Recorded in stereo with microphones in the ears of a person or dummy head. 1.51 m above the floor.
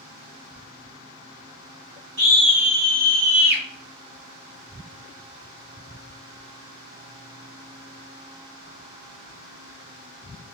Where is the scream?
60° right (ahead or behind), 1.5 m; by 3.6 s 65° right (ahead or behind), 0.9 m.